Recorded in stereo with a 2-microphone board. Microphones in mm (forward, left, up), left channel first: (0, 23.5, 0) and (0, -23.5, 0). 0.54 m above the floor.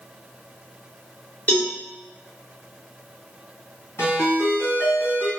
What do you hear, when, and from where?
1.5 s a cowbell: 35° left (ahead or behind), 1.2 m
4.0 s a ringtone: 70° left (ahead or behind), 1.9 m